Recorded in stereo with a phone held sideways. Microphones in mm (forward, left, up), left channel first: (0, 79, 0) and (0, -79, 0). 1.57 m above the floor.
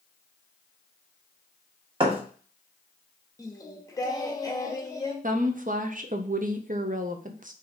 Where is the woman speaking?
55° right (ahead or behind), 0.6 m.